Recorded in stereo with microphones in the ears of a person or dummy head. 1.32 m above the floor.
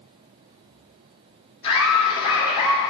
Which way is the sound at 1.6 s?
30° left (ahead or behind).